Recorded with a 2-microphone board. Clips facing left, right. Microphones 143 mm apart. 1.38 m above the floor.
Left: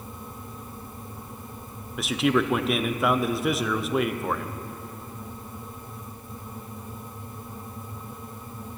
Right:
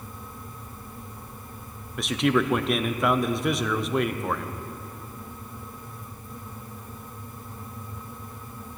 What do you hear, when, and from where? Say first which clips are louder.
2.0 s a man speaking: even; centre (ahead or behind), 0.6 m